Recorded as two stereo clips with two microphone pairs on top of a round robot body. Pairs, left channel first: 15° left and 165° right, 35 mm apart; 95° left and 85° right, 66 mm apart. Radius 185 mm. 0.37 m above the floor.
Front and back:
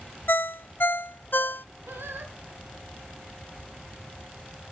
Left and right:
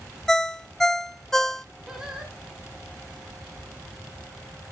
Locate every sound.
0.3 s a ringtone: 15° left, 0.7 m
1.9 s singing: 170° right, 2 m